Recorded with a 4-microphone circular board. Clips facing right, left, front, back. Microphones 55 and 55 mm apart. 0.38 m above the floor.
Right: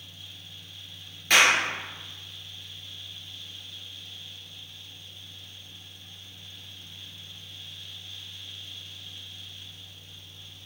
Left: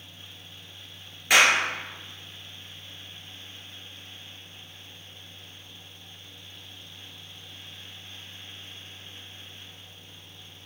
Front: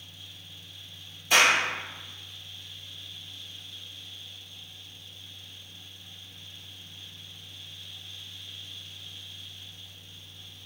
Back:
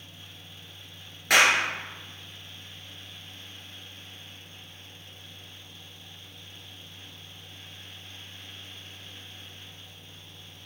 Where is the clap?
170° left, 4.5 m.